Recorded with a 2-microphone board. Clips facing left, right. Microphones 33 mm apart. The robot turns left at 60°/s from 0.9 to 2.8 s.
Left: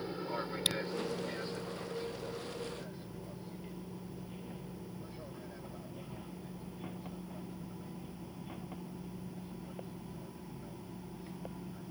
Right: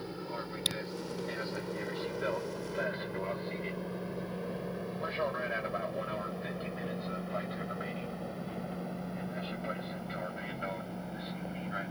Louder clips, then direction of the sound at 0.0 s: Left 1 dB; centre (ahead or behind).